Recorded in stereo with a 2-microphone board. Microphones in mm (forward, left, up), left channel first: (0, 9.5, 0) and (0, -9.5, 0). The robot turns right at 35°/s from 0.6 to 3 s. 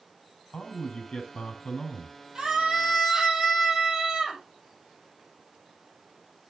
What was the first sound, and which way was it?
A man speaking, 95° left.